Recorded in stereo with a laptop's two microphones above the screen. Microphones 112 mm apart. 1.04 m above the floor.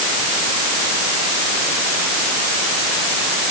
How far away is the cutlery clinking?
No cutlery clinking in this recording.